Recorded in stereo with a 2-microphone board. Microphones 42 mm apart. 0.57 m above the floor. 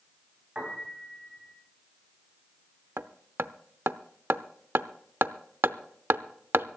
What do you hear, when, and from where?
0.6 s a piano: 10° right (ahead or behind), 4 m
3.0 s hammering: 65° right (ahead or behind), 0.6 m